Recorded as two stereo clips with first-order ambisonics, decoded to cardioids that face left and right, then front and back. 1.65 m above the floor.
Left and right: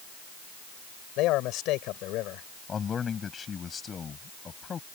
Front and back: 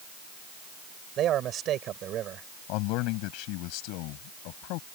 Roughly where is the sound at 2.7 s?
Ahead.